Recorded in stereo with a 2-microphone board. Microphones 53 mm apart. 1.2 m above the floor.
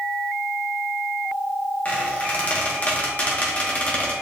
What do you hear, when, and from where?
1.9 s a squeak: 30° left (ahead or behind), 1.1 m